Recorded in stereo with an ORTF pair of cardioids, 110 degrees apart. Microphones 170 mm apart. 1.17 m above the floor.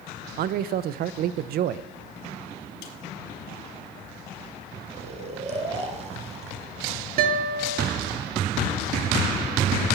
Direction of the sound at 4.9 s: 40° right.